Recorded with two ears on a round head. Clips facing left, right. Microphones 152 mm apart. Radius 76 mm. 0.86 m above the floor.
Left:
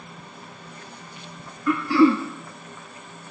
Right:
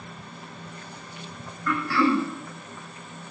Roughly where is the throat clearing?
Centre.